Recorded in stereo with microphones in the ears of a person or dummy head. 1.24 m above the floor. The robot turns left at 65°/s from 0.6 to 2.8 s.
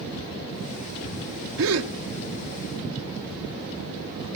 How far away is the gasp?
About 1.2 m.